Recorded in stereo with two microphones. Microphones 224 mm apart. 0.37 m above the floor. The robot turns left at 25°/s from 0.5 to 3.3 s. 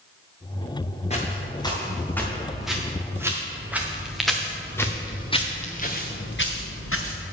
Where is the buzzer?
I don't hear a buzzer.